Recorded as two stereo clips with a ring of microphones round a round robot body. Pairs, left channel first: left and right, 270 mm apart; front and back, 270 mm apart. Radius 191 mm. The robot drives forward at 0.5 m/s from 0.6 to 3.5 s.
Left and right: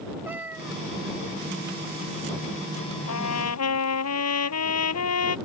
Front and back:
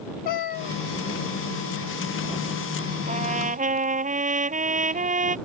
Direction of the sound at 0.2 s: 5° right.